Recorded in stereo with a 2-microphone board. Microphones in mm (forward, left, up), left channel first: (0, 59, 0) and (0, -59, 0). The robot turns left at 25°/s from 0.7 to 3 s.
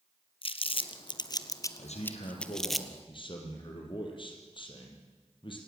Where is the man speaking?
75° left, 5 m; by 5.6 s 45° left, 5 m.